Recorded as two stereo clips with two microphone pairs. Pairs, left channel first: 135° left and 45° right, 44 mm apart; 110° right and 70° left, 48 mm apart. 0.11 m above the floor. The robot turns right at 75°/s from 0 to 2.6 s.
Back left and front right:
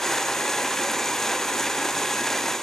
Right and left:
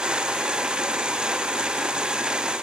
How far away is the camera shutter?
I don't hear a camera shutter.